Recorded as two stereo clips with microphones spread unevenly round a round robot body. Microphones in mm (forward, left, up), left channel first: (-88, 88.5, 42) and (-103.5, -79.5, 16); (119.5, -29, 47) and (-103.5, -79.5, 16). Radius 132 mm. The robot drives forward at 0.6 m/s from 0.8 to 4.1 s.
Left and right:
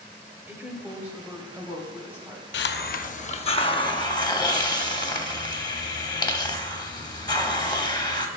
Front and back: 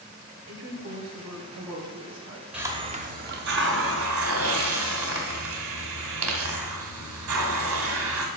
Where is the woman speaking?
170° right, 1.8 m; by 2.4 s 175° right, 2.5 m.